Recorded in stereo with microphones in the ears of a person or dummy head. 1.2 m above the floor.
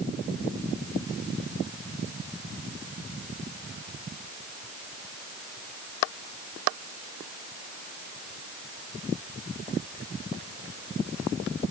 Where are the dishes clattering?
I don't hear dishes clattering.